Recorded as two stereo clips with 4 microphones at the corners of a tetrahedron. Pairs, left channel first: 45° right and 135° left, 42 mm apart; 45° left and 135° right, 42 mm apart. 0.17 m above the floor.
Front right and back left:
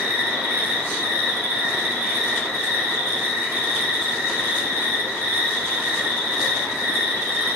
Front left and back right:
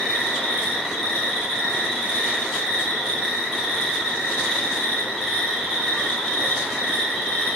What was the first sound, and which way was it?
An insect, 150° left.